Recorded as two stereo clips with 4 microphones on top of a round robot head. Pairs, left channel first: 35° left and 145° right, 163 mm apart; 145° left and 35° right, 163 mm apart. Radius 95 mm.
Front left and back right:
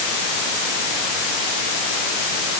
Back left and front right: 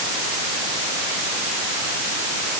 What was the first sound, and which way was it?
Only background noise.